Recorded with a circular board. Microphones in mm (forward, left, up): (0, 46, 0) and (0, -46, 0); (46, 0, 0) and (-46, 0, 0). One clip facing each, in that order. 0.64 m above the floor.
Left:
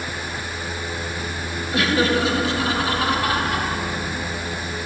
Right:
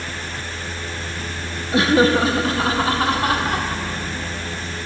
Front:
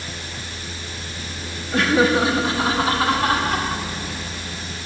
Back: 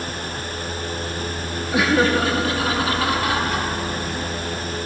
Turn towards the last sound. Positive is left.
turn(degrees=-40)